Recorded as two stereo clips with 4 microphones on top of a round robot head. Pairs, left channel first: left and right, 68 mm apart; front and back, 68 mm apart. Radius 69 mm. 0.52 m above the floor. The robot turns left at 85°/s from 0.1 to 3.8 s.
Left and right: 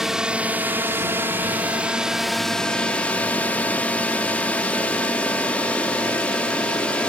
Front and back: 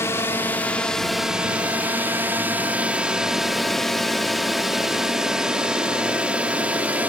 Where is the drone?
10° right; by 7.1 s 145° left.